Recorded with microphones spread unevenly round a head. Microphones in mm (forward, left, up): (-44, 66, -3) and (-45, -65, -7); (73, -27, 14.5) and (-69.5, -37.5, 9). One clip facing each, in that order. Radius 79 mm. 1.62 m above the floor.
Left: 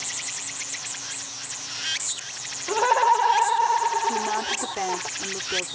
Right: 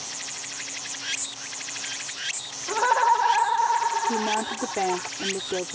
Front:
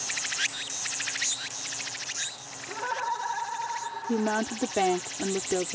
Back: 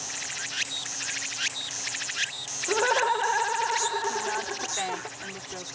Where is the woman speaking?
25° right.